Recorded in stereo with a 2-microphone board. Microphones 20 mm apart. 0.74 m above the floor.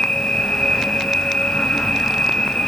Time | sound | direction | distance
0.0 | an insect | 70° left (ahead or behind) | 5.5 m